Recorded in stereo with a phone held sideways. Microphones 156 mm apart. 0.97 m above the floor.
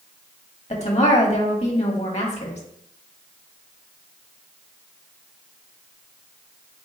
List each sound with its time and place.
0.7 s a woman speaking: 45° left (ahead or behind), 1.2 m